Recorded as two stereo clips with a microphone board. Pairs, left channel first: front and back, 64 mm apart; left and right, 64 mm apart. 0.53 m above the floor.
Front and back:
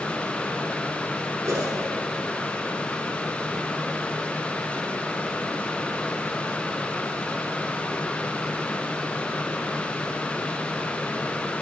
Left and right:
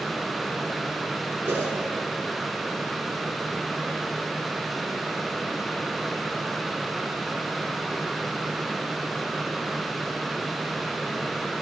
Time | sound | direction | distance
1.4 | a whoosh | 150° right | 3.5 m